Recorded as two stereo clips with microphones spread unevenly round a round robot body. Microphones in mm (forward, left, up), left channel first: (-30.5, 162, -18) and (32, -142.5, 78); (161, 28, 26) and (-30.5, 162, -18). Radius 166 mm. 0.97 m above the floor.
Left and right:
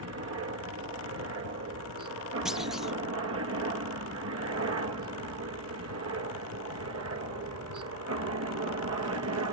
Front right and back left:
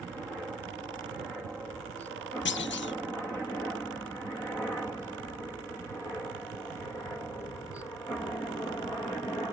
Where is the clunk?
10° left.